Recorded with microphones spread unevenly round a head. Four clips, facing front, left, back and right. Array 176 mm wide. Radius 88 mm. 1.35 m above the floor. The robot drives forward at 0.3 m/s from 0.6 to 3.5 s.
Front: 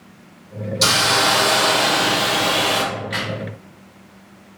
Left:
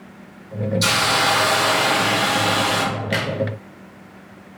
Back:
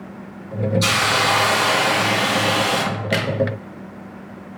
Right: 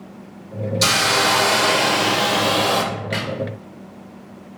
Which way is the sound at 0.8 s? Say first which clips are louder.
Right 2 dB, front 4 dB; 35° right.